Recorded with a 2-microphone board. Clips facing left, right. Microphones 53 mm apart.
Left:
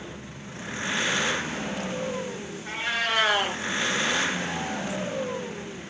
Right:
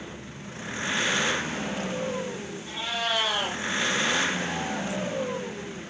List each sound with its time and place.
2.6 s a cat meowing: 55° left (ahead or behind), 5.5 m